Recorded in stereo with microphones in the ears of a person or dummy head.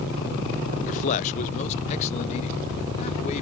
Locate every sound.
0.9 s a man speaking: 40° left (ahead or behind)